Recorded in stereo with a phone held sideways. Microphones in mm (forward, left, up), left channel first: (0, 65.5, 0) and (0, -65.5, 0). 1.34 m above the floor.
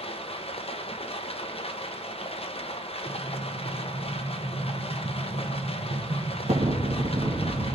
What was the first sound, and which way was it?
Running water, 50° left (ahead or behind).